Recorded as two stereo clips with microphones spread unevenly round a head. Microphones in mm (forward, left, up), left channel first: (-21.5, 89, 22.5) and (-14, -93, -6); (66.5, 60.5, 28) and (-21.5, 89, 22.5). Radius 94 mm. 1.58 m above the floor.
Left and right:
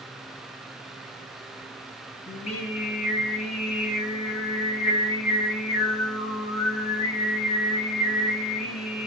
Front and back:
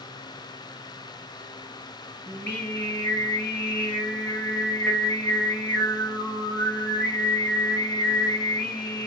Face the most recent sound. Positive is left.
turn(degrees=50)